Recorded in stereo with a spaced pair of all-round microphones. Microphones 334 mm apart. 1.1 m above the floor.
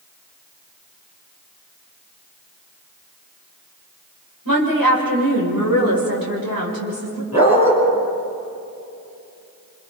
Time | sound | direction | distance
4.5 | a woman speaking | 85° right | 5 m
7.3 | a dog barking | 60° right (ahead or behind) | 6 m